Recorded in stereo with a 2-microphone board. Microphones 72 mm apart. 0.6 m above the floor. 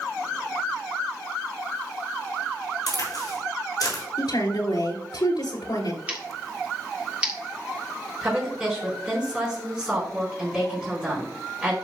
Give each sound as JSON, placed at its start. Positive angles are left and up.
{"t": 2.9, "sound": "a crack", "side_deg": 55, "distance_m": 5.0}
{"t": 4.2, "sound": "a woman speaking", "side_deg": 70, "distance_m": 2.5}
{"t": 6.1, "sound": "scissors", "side_deg": -15, "distance_m": 2.5}
{"t": 8.2, "sound": "a woman speaking", "side_deg": -10, "distance_m": 4.5}